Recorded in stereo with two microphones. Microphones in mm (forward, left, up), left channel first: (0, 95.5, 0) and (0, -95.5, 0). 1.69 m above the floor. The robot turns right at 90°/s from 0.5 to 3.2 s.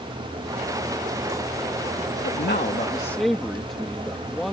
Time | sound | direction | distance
2.2 | a man speaking | 90° left | ?